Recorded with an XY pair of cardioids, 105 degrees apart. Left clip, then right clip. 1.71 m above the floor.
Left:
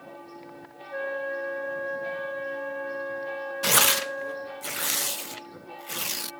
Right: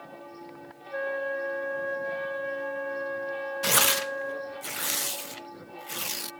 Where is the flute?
5° right.